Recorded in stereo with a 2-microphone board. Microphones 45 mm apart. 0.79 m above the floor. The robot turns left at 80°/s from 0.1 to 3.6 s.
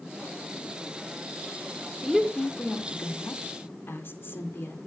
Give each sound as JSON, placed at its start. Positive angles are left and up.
{"t": 2.0, "sound": "a woman speaking", "side_deg": -10, "distance_m": 2.0}